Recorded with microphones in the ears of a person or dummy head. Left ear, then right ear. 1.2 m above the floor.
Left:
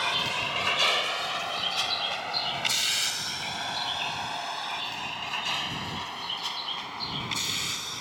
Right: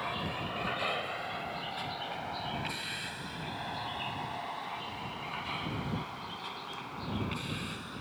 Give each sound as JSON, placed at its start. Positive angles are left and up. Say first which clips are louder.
{"t": 0.0, "sound": "a vehicle", "louder": "left 9 dB", "side_deg": 75}